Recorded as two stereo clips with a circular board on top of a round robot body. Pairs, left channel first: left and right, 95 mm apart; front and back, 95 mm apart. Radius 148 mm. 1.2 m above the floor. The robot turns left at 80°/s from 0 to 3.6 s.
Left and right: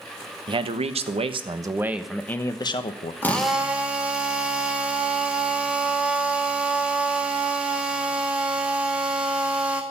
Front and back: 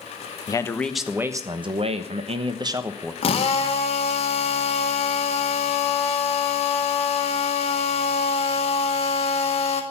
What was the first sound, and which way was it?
A man speaking, 50° right.